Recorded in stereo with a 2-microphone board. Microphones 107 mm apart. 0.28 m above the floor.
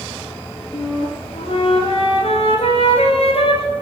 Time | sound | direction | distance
0.7 | a flute | 55° left (ahead or behind) | 1.6 m